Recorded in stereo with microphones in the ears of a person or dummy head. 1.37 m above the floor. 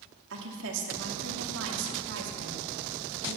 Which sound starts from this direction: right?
A woman speaking, at 0.3 s.